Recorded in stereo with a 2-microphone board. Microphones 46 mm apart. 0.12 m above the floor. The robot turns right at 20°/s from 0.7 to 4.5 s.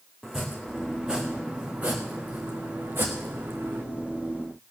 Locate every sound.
0.2 s chopping: 10° right (ahead or behind), 1.8 m; by 3.8 s 70° right (ahead or behind), 1.8 m